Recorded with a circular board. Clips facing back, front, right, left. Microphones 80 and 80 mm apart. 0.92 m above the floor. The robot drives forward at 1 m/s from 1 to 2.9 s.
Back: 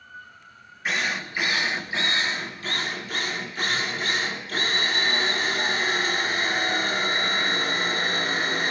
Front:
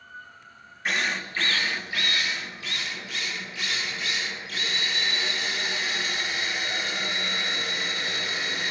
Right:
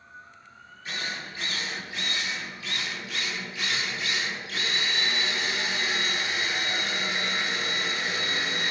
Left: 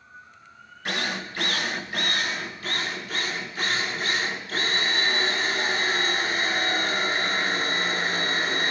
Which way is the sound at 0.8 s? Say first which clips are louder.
Back 1 dB, left 6 dB; 90° left.